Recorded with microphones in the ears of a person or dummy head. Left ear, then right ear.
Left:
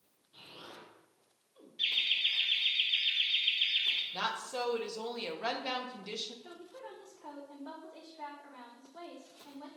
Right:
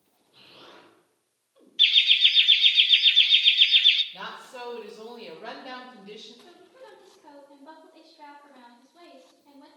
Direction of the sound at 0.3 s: 10° left (ahead or behind).